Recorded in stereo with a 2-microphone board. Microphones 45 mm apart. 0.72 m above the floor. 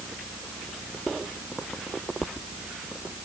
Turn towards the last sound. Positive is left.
No sound to turn to.